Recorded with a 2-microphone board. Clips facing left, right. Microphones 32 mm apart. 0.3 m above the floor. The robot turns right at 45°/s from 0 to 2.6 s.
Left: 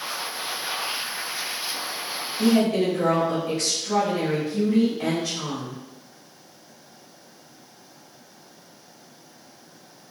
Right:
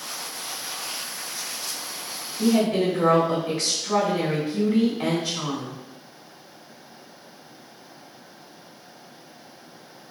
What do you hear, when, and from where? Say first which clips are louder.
2.4 s a woman speaking: left 1 dB; 10° right (ahead or behind), 0.9 m; by 5.8 s 15° right (ahead or behind), 0.9 m